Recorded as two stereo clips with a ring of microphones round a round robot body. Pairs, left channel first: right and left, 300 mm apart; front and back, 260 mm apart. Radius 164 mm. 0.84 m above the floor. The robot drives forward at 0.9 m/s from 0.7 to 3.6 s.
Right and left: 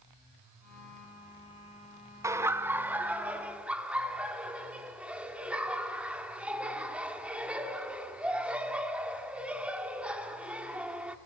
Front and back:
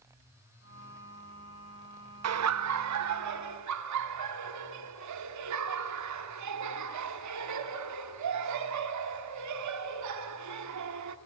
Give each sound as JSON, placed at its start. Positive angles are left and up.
{"t": 2.2, "sound": "laughter", "azimuth_deg": 170, "distance_m": 0.8}